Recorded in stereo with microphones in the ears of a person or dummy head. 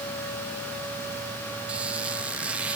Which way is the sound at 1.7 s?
5° right (ahead or behind).